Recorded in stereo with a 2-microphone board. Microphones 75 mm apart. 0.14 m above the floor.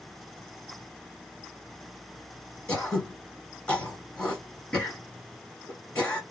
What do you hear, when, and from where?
2.7 s throat clearing: 10° left (ahead or behind), 1.9 m